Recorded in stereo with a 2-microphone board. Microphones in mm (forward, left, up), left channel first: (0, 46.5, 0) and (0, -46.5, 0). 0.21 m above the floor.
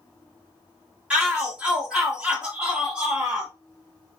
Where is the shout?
10° right (ahead or behind), 1.1 m.